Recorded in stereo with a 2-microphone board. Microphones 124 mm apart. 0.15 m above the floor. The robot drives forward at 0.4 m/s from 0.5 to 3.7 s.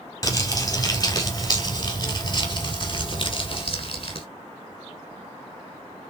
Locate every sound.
0.2 s crumpling: 30° left (ahead or behind), 2.5 m; by 4.3 s 45° left (ahead or behind), 1.7 m